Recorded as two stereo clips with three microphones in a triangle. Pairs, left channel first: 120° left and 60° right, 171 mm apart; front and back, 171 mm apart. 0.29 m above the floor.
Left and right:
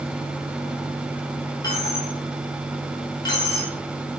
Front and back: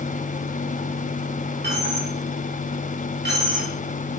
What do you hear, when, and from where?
1.6 s a dropped coin: 170° right, 3.5 m